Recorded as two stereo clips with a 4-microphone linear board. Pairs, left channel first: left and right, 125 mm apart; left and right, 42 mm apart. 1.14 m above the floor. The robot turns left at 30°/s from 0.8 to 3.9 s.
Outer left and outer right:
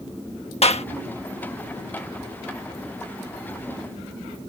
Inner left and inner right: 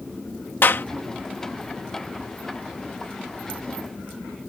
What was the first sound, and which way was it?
A clap, 60° left (ahead or behind).